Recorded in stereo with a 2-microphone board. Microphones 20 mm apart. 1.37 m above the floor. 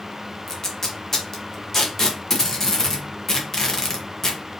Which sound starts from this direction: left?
Tape being pulled, at 0.5 s.